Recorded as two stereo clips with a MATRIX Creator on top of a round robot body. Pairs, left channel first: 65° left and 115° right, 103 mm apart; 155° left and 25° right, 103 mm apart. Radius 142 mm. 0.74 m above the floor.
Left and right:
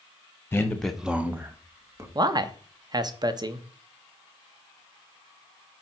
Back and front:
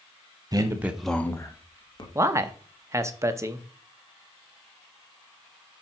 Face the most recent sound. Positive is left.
turn(degrees=-75)